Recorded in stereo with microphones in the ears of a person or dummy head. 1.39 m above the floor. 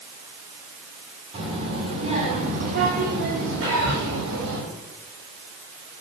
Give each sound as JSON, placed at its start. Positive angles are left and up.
{"t": 1.3, "sound": "a child speaking", "side_deg": -25, "distance_m": 2.5}
{"t": 3.6, "sound": "whispering", "side_deg": -45, "distance_m": 5.0}